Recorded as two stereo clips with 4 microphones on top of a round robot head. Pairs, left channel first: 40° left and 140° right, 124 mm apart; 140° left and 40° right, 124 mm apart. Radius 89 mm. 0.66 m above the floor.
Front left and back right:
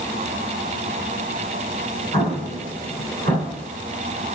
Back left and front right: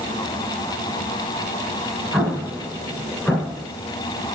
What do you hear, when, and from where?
2.1 s an explosion: 130° right, 2.5 m